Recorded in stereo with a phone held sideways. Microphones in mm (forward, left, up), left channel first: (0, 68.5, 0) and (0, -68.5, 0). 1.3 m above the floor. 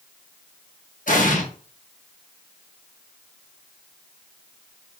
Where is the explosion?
70° left (ahead or behind), 1.5 m.